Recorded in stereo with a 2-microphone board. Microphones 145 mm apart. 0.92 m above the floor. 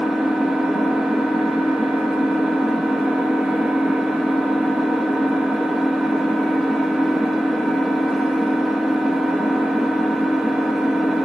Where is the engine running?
5° right (ahead or behind), 0.8 m.